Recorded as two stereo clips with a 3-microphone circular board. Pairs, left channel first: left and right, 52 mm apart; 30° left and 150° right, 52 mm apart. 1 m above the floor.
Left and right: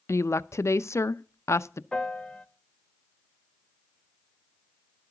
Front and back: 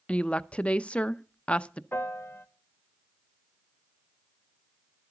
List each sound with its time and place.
0.1 s a woman speaking: 90° left, 0.5 m
1.9 s a piano: 25° left, 1.0 m